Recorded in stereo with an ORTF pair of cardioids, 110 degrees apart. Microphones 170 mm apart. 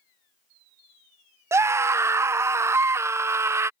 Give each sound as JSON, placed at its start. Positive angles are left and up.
{"t": 1.5, "sound": "a scream", "azimuth_deg": -15}